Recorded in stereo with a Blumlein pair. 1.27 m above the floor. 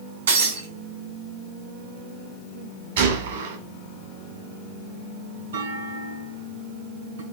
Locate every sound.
0.3 s breaking glass: 70° right, 3 m
3.0 s a gunshot: 65° right, 2 m
5.5 s a clunk: 70° right, 3.5 m